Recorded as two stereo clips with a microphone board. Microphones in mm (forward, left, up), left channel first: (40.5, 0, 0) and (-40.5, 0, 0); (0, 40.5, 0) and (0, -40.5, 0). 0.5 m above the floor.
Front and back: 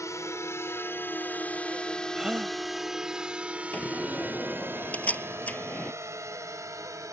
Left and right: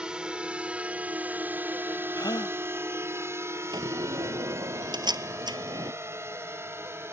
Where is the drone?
15° right; by 7.1 s 140° right.